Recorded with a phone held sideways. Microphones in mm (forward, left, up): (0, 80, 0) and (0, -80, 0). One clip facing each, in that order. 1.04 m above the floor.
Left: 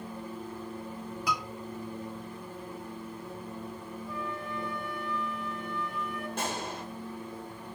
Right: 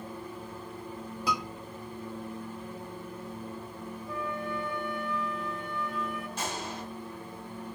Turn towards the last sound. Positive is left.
turn(degrees=55)  # may be behind; listen again after turning